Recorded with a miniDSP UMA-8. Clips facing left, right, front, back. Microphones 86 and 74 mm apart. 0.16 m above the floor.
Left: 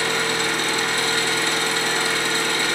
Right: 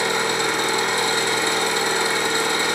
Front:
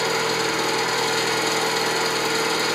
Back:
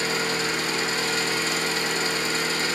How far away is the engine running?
About 3 m.